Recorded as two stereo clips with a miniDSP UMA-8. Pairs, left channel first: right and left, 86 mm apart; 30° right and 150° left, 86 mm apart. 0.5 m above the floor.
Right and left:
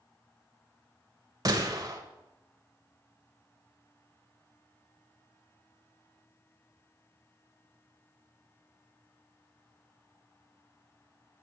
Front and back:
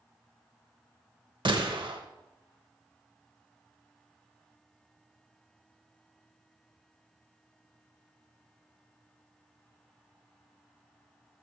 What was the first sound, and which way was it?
A gunshot, 135° left.